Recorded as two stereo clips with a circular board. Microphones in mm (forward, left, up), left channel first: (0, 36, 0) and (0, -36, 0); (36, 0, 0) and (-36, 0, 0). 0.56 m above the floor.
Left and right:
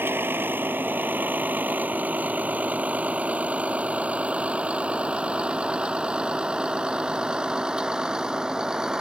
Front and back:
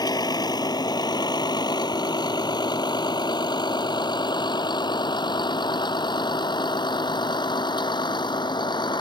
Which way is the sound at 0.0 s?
30° right.